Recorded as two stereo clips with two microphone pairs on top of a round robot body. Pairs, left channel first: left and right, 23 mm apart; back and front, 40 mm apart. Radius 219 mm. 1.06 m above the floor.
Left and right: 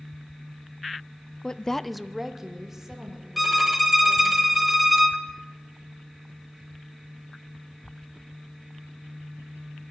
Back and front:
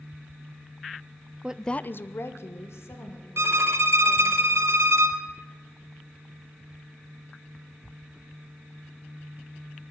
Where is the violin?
5° right, 1.1 m.